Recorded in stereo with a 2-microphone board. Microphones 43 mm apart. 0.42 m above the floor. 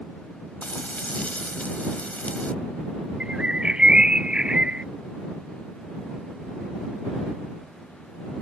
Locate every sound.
0.6 s frying: 35° left (ahead or behind)
3.2 s a bird: 20° right (ahead or behind)